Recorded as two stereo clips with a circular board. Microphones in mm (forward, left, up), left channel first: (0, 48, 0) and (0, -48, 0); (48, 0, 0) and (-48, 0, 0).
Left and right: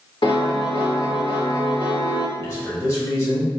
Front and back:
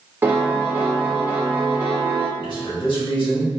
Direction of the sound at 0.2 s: 115° left.